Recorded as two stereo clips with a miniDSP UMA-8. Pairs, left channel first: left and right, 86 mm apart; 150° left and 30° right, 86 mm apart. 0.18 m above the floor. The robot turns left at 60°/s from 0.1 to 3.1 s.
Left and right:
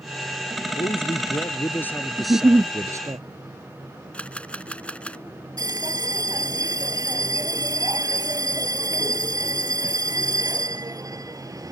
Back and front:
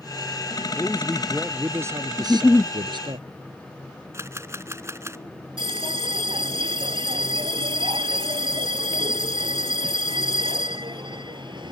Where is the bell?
45° right.